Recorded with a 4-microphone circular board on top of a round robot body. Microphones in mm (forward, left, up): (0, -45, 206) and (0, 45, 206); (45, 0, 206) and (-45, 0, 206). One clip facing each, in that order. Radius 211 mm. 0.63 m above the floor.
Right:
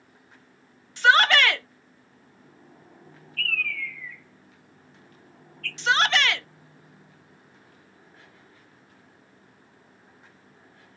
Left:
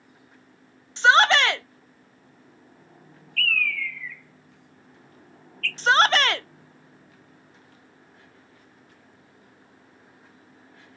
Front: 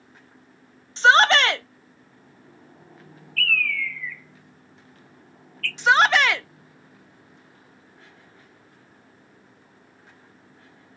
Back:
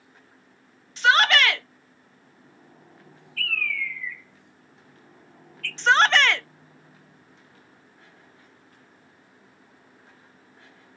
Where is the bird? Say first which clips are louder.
Left 4 dB, front 4 dB; 105° left, 0.6 m.